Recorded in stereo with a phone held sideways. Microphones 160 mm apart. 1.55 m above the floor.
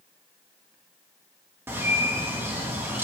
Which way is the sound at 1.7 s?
15° right (ahead or behind).